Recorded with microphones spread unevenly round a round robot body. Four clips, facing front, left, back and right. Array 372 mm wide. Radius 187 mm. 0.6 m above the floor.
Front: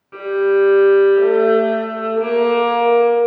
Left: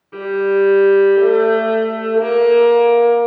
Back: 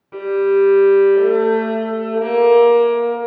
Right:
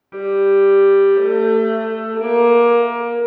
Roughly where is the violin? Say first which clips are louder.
Right 2 dB, even; right.